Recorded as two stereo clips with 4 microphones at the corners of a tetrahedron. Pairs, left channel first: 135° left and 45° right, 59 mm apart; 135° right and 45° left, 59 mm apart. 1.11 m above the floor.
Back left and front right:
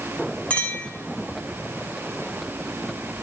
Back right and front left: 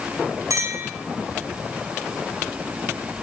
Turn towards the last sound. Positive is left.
turn(degrees=65)